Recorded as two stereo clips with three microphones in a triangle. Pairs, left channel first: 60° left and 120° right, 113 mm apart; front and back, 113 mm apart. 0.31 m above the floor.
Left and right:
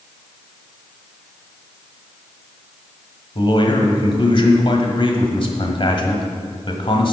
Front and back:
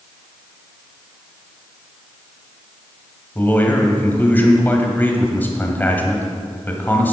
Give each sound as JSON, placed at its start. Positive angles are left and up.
{"t": 3.4, "sound": "a man speaking", "azimuth_deg": 70, "distance_m": 1.4}